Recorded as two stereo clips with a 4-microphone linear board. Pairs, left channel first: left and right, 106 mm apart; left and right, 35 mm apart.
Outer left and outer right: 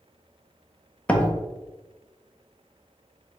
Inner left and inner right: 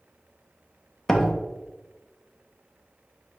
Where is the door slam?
10° left (ahead or behind), 0.6 m.